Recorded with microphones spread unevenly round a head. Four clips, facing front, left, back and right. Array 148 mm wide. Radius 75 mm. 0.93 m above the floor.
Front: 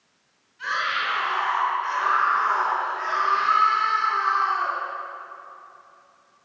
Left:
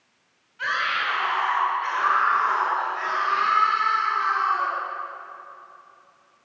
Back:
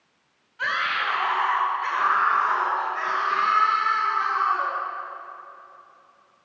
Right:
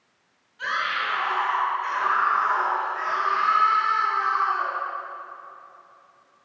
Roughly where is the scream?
Behind.